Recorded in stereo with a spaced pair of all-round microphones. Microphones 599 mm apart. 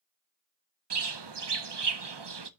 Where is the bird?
45° right (ahead or behind), 0.6 m.